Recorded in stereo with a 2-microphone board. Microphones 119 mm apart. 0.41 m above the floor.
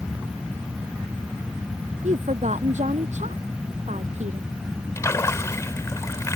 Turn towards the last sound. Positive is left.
turn(degrees=25)  # may be behind; listen again after turning